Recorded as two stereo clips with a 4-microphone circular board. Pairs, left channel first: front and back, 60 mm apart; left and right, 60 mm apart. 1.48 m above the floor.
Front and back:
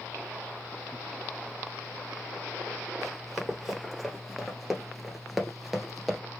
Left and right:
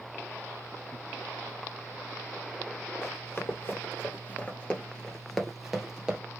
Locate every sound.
3.0 s running footsteps: 90° left, 1.9 m; by 6.2 s 100° right, 1.5 m